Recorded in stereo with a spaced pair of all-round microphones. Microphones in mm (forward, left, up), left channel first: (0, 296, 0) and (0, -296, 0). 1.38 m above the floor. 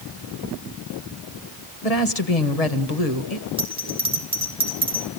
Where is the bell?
10° right (ahead or behind), 4 m.